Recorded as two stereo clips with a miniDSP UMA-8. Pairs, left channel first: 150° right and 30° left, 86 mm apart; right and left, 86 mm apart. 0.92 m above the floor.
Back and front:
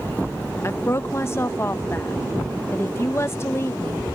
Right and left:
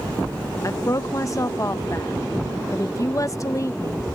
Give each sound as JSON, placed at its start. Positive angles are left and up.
{"t": 0.6, "sound": "a woman speaking", "azimuth_deg": -110}